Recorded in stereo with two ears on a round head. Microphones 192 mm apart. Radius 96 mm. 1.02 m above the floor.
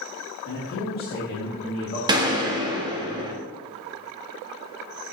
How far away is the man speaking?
About 2.5 m.